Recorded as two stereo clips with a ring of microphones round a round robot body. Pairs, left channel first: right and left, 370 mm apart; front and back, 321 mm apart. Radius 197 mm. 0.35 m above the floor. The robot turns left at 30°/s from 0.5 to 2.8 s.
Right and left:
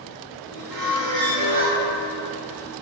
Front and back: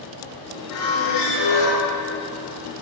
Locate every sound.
0.7 s a squeak: 45° left, 1.7 m; by 1.8 s 10° left, 1.7 m